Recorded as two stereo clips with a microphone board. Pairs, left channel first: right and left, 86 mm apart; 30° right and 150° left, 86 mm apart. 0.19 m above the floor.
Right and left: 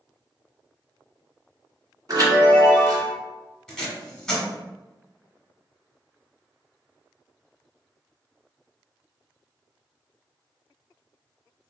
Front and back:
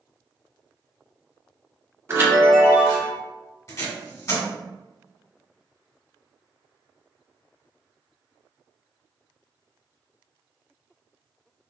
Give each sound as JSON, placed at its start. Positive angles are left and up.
{"t": 2.1, "sound": "a chime", "azimuth_deg": 105, "distance_m": 1.7}
{"t": 3.7, "sound": "tape being pulled", "azimuth_deg": -5, "distance_m": 1.4}